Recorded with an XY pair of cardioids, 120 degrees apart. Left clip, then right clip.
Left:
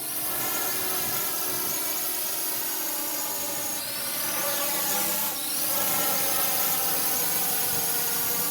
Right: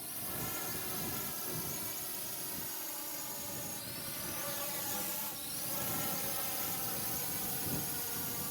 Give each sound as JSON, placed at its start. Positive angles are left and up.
{"t": 0.0, "sound": "a drone", "azimuth_deg": 65}